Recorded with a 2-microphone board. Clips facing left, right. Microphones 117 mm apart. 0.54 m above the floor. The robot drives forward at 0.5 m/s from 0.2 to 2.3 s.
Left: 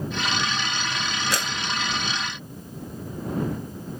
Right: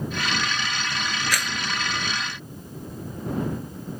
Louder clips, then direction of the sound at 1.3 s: Left 1 dB; 25° left (ahead or behind).